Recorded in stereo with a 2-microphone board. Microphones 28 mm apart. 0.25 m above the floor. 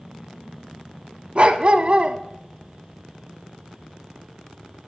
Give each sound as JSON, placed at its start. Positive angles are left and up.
{"t": 1.4, "sound": "a dog barking", "side_deg": -45, "distance_m": 0.6}